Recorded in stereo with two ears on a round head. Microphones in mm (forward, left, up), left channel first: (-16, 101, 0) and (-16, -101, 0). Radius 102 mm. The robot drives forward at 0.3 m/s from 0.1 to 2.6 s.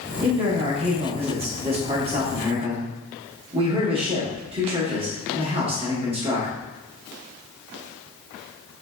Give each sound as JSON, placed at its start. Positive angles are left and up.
{"t": 0.2, "sound": "a man speaking", "side_deg": -25, "distance_m": 1.0}